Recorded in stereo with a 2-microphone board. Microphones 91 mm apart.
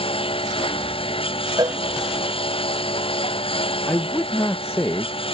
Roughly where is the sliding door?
No sliding door in this recording.